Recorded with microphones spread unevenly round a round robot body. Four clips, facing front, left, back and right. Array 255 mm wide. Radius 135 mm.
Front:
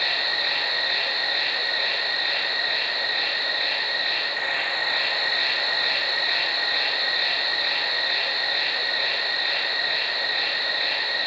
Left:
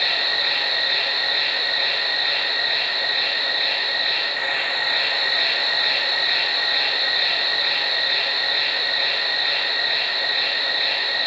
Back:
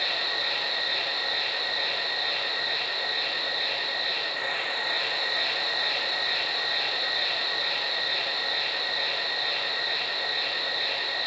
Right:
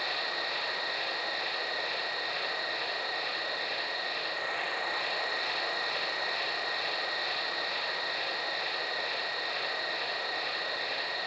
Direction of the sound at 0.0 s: 70° left.